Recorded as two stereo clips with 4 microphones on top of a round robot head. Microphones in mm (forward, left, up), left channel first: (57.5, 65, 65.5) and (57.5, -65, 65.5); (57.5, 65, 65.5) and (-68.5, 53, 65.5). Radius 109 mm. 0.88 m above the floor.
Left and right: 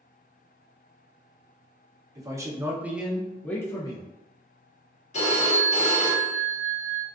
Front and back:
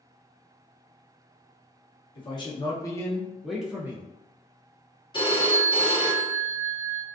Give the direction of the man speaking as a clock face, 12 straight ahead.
1 o'clock.